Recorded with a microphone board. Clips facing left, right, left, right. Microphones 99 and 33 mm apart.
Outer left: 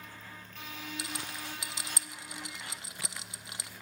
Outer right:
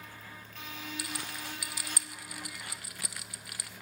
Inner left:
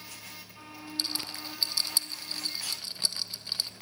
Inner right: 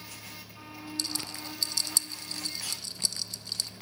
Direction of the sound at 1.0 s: 25° left (ahead or behind).